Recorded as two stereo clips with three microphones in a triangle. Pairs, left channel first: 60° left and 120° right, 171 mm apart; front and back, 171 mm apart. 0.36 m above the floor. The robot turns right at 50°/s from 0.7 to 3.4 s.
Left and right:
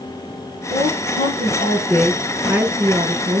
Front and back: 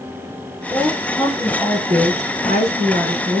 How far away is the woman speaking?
About 5 m.